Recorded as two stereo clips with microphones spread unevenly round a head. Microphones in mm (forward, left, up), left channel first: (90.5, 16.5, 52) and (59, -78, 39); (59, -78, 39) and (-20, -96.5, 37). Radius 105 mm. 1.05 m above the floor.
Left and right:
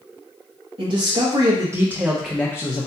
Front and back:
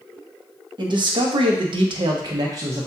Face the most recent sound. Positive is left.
turn(degrees=130)